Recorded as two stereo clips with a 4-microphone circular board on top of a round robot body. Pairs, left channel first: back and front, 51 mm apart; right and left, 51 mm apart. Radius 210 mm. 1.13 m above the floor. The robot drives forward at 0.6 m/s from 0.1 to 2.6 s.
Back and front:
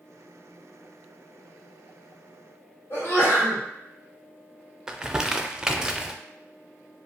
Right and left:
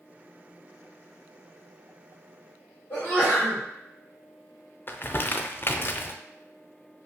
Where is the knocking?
No knocking in this recording.